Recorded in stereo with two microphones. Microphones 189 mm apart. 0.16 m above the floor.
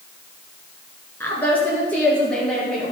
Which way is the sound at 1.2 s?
10° left (ahead or behind).